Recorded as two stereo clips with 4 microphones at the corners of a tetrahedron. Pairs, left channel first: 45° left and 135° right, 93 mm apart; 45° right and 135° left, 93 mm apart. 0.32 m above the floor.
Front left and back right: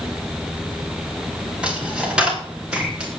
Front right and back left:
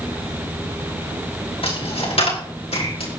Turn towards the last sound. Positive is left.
turn(degrees=-55)